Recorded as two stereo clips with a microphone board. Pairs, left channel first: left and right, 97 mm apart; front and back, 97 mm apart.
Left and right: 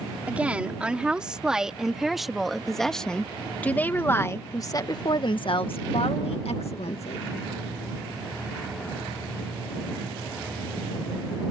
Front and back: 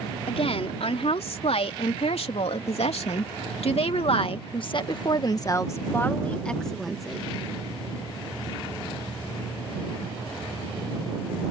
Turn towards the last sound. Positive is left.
turn(degrees=95)